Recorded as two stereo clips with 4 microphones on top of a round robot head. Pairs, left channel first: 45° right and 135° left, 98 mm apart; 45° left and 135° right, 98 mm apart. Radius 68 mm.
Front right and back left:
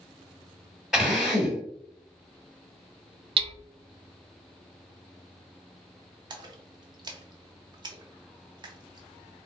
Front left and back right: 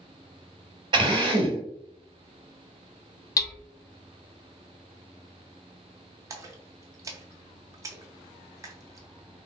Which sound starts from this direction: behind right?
A drill, at 0.9 s.